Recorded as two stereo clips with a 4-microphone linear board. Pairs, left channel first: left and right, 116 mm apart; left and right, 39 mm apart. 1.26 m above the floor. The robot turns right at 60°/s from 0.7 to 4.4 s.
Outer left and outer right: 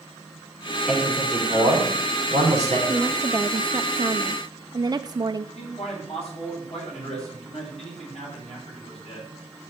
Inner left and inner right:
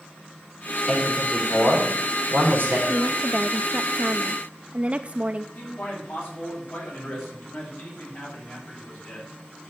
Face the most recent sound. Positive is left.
turn(degrees=65)  # may be behind; listen again after turning